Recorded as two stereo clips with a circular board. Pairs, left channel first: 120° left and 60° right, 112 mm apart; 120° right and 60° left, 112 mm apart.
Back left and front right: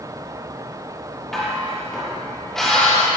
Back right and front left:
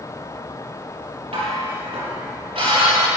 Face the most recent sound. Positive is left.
turn(degrees=35)